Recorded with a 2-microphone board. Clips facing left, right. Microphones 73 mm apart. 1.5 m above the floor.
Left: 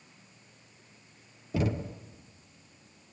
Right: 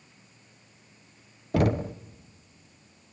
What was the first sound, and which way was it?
Knocking, 65° right (ahead or behind).